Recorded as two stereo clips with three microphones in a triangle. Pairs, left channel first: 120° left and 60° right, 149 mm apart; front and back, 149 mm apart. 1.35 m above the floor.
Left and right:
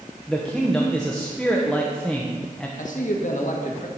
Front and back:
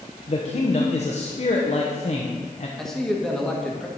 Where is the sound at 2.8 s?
85° left, 1.4 m.